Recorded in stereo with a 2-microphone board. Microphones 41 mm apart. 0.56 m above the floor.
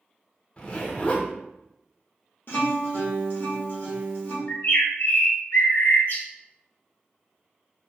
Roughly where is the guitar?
Left.